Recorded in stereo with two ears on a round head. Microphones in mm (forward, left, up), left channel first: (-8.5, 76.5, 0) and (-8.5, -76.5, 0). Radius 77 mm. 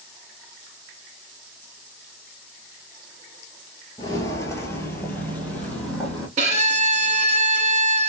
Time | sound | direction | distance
4.0 | footsteps | 20° left (ahead or behind) | 0.7 m
6.4 | a violin | 40° right (ahead or behind) | 0.6 m